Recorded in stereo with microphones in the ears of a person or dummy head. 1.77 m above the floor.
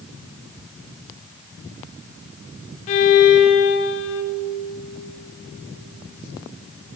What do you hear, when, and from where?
2.9 s a violin: 35° left (ahead or behind), 1.0 m